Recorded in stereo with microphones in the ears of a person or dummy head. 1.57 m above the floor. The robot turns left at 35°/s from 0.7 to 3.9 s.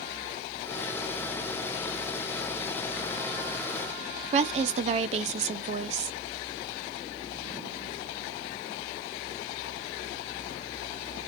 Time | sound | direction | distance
4.3 | a woman speaking | 40° right (ahead or behind) | 0.6 m